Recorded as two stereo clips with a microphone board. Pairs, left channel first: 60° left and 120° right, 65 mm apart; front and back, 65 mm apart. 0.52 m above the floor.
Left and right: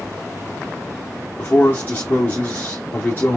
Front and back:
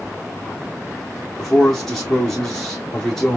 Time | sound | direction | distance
1.4 | a man speaking | 80° left | 1.2 m